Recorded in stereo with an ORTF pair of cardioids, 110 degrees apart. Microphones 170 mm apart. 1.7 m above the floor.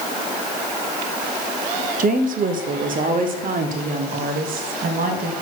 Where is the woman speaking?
55° right, 1.0 m.